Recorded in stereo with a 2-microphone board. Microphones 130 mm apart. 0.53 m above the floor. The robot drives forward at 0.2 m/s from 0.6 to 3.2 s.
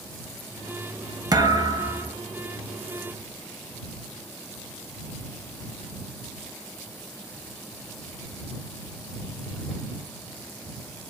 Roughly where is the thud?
Right.